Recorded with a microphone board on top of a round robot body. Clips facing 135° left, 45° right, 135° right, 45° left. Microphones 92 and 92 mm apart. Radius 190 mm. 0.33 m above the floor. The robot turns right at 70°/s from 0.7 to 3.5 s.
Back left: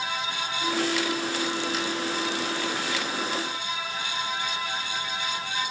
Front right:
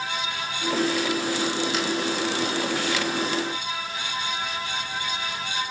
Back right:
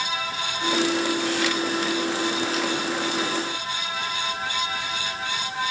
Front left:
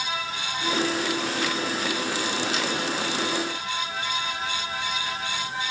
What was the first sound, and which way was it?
Only background noise.